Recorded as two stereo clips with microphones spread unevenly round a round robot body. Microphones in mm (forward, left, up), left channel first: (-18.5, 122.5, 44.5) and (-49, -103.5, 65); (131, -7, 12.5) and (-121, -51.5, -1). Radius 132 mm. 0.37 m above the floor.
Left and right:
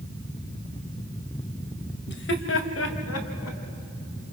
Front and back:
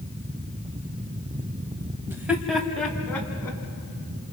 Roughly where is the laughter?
Left.